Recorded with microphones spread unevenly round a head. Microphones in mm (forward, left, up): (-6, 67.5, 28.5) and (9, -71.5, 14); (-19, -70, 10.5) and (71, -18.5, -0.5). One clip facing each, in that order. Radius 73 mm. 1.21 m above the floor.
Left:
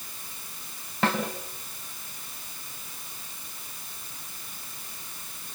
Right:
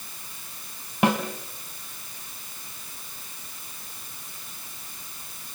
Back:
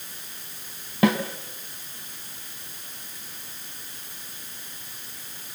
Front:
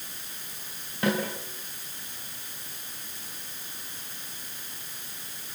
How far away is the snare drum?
About 2.5 m.